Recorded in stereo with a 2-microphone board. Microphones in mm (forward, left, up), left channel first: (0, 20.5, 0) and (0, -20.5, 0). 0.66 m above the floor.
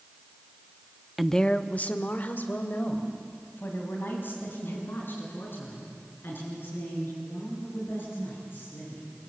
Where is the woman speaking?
5° right (ahead or behind), 0.6 m; by 9.0 s 60° left (ahead or behind), 11 m.